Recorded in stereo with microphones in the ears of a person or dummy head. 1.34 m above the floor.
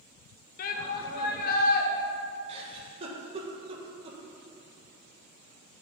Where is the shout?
55° left (ahead or behind), 1.5 m.